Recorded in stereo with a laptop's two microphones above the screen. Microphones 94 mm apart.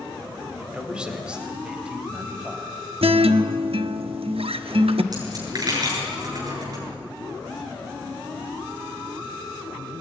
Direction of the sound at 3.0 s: 85° right.